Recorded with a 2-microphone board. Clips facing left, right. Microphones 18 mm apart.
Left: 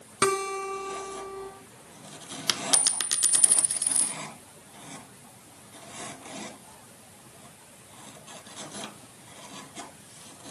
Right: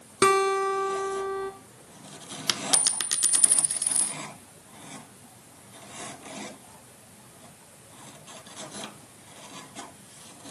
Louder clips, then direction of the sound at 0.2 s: Right 5 dB; 35° right (ahead or behind).